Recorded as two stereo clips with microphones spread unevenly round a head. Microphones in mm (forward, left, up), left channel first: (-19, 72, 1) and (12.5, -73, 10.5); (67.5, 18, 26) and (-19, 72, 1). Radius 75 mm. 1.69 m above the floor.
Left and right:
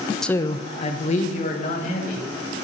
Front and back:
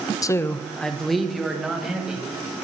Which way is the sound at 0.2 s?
15° left.